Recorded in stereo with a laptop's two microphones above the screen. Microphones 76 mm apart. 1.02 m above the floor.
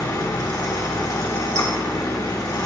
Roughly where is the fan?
Left.